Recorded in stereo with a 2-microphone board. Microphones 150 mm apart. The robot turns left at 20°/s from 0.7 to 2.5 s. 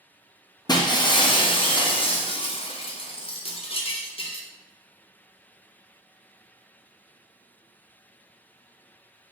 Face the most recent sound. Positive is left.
turn(degrees=100)